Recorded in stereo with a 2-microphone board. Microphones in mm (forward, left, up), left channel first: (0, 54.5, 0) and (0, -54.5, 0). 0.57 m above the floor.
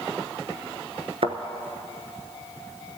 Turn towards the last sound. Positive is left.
turn(degrees=-60)  # may be behind; listen again after turning